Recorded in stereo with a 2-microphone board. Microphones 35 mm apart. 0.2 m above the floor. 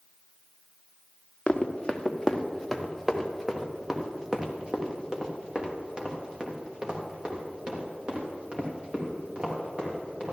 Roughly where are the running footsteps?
Left.